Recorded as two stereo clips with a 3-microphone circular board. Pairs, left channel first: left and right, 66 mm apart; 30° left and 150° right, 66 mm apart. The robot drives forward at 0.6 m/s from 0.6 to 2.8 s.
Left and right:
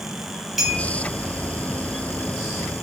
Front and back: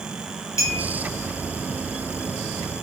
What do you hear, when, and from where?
0.6 s a clink: straight ahead, 1.6 m